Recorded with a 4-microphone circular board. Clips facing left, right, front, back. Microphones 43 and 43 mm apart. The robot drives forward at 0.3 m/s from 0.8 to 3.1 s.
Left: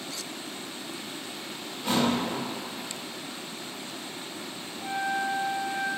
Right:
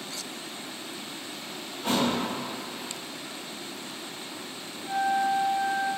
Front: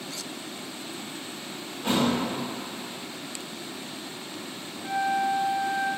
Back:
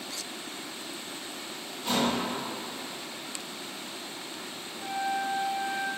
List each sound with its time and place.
1.8 s a thud: 45° right, 1.6 m; by 2.1 s 50° right, 1.5 m
4.8 s a flute: 160° left, 1.0 m